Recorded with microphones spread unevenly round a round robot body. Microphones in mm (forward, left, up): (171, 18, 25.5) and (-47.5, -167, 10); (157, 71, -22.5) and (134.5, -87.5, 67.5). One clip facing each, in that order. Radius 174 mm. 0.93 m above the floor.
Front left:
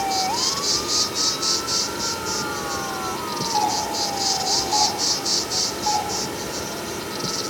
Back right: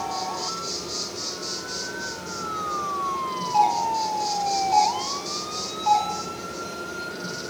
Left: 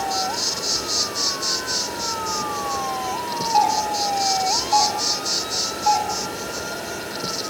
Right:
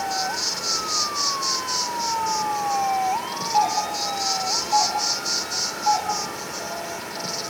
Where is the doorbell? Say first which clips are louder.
Back right 3 dB, left 2 dB; 150° left, 2 m.